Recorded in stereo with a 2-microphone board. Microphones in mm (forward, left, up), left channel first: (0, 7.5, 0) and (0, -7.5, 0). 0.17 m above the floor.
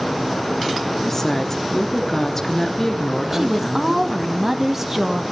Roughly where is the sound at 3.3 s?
Right.